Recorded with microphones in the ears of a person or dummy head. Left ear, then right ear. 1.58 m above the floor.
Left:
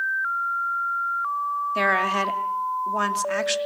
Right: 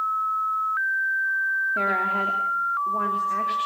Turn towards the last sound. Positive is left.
turn(degrees=75)  # may be behind; listen again after turning